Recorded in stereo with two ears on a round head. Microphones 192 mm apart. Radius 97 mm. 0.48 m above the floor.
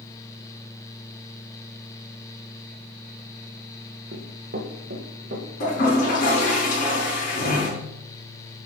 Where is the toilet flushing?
45° left (ahead or behind), 4 m.